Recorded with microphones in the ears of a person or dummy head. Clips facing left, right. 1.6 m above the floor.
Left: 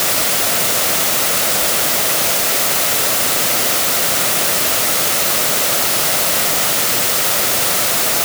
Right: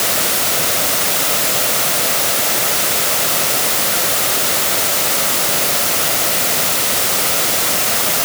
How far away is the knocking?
I don't hear knocking.